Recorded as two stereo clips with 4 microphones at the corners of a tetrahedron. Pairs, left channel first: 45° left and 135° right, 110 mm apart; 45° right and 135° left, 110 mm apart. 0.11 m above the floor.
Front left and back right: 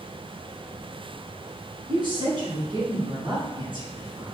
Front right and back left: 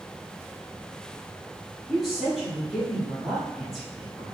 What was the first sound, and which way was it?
A woman speaking, 135° right.